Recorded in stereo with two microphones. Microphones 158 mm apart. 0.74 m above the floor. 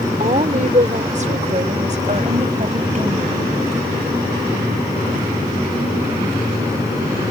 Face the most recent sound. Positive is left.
turn(degrees=-45)  # may be behind; listen again after turning